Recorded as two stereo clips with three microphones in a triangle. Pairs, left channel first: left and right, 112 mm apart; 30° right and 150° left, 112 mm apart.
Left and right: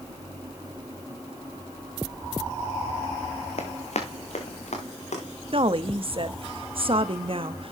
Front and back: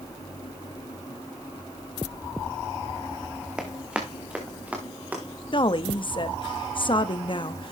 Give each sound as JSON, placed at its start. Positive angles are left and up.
{"t": 3.6, "sound": "running footsteps", "azimuth_deg": 70, "distance_m": 1.8}
{"t": 5.5, "sound": "a woman speaking", "azimuth_deg": -65, "distance_m": 0.8}